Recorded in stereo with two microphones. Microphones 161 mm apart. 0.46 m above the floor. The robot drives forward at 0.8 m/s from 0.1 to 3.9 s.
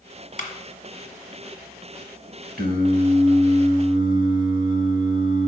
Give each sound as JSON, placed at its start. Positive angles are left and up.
{"t": 0.4, "sound": "a clap", "side_deg": 50, "distance_m": 1.3}
{"t": 2.6, "sound": "singing", "side_deg": -70, "distance_m": 1.0}